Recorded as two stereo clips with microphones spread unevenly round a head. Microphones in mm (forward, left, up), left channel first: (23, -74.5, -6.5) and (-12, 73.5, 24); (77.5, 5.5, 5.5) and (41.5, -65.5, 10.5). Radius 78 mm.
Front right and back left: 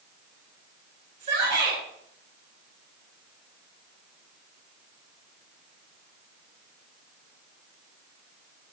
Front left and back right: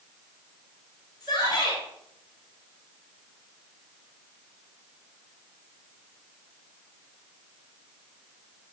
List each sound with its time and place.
1.2 s a shout: 150° left, 7 m